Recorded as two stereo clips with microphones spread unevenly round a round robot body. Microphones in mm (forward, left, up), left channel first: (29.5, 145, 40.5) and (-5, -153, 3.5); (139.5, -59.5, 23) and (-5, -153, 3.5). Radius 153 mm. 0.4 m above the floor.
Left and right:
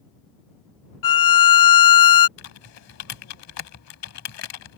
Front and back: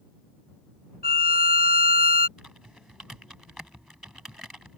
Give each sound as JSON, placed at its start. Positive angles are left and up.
{"t": 1.0, "sound": "a violin", "azimuth_deg": 80}
{"t": 2.4, "sound": "typing on a keyboard", "azimuth_deg": 125}